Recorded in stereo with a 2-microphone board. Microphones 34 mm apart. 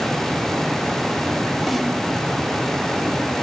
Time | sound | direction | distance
1.7 | a snare drum | 5° right (ahead or behind) | 3 m